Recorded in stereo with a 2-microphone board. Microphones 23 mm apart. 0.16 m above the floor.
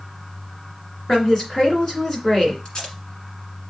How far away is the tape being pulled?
About 1.5 m.